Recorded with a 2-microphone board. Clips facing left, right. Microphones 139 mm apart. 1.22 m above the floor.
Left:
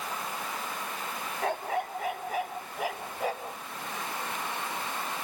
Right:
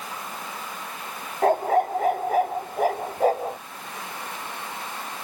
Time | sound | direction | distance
1.4 | a dog barking | 45° right (ahead or behind) | ?